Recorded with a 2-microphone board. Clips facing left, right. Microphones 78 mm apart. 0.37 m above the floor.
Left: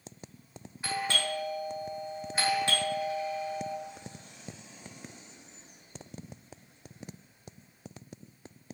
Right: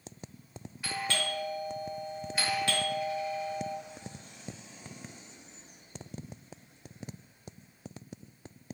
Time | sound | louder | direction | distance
0.8 | a doorbell | left 2 dB | 30° left (ahead or behind) | 1.8 m